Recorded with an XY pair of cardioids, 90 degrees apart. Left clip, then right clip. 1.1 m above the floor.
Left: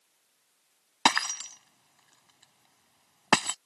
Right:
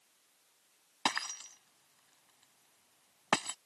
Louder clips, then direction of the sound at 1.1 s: Left 10 dB; 65° left.